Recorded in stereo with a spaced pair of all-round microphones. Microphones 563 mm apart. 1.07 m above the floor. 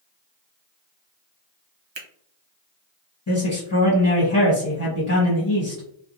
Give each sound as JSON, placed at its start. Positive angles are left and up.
{"t": 1.9, "sound": "a finger snap", "side_deg": -50, "distance_m": 0.7}
{"t": 3.3, "sound": "a man speaking", "side_deg": 35, "distance_m": 1.3}